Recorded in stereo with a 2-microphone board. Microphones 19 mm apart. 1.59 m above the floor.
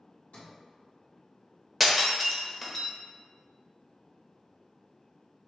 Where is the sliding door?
85° left, 1.9 m.